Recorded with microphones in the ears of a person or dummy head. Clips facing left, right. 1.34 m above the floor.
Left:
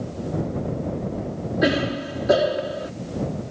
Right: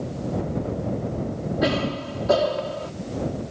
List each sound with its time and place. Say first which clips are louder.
1.6 s a cough: left 3 dB; 15° left (ahead or behind)